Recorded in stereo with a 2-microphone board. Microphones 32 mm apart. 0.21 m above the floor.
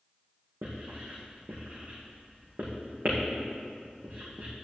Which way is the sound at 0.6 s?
60° right (ahead or behind).